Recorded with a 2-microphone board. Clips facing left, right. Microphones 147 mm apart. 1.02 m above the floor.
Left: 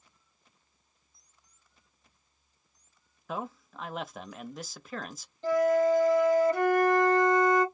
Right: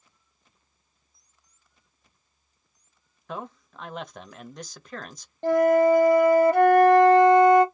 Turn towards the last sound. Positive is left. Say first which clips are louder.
# right 5 dB
turn(degrees=-65)  # may be behind; listen again after turning